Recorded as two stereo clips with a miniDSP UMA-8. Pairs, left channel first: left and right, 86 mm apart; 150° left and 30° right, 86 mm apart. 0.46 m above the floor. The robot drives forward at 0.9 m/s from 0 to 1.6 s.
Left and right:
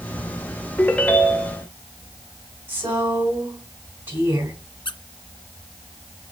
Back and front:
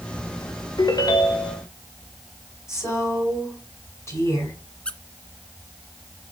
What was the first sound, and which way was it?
A ringtone, 155° left.